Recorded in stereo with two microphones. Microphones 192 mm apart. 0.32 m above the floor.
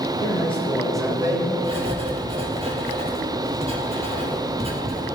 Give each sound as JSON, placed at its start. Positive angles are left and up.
{"t": 0.2, "sound": "a man speaking", "side_deg": 35, "distance_m": 1.6}
{"t": 1.6, "sound": "writing", "side_deg": -30, "distance_m": 2.0}